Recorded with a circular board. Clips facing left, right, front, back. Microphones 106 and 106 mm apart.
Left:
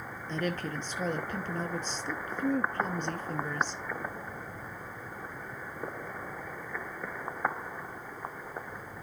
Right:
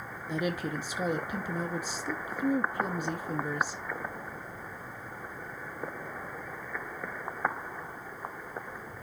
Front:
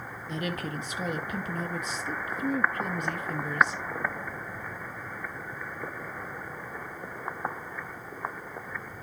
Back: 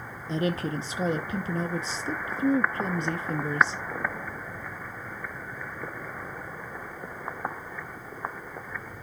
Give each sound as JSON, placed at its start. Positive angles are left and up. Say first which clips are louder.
{"t": 0.3, "sound": "a woman speaking", "louder": "right 2 dB, back 6 dB", "azimuth_deg": -160, "distance_m": 0.6}